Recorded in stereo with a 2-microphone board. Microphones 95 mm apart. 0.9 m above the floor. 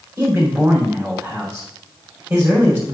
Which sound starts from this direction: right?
A man speaking, at 0.2 s.